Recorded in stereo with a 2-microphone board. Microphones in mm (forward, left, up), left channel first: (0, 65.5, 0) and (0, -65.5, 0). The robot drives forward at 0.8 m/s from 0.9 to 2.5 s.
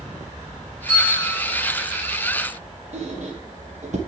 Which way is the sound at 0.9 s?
45° right (ahead or behind).